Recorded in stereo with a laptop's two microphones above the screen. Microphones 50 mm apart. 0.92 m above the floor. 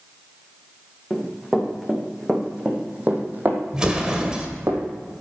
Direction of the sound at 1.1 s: Centre (ahead or behind).